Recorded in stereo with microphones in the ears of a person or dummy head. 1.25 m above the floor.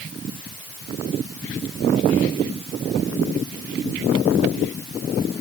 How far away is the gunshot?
I don't hear a gunshot.